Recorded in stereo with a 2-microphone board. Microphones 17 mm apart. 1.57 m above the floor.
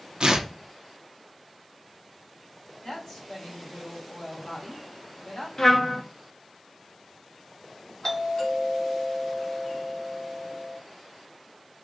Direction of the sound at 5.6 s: 40° left (ahead or behind).